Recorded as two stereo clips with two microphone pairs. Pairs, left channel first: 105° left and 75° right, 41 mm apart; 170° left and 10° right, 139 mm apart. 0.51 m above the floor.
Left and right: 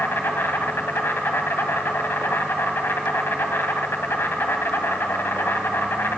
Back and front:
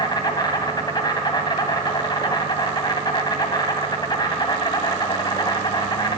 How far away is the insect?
About 1.9 m.